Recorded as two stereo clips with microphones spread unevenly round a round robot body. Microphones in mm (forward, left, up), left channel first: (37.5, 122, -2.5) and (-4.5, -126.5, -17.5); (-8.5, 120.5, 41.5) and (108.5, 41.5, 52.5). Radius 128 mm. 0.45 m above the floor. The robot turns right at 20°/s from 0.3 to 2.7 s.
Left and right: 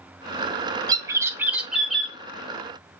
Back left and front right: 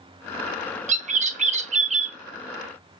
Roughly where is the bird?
Ahead right.